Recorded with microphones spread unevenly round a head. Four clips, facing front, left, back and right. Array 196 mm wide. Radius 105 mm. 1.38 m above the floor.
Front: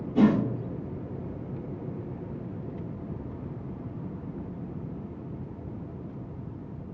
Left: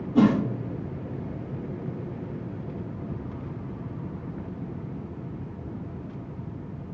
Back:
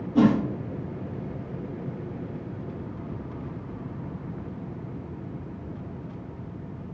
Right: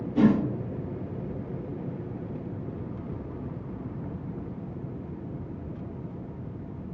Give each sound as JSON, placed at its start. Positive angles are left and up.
{"t": 0.1, "sound": "a whoosh", "azimuth_deg": 115, "distance_m": 2.5}